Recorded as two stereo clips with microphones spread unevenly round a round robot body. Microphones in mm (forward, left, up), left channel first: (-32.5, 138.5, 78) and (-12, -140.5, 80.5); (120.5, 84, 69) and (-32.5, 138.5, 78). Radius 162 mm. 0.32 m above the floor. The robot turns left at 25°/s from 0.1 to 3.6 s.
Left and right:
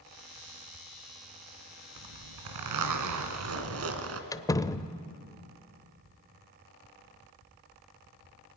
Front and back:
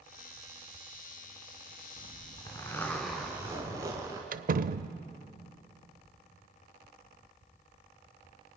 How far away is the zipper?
About 2 m.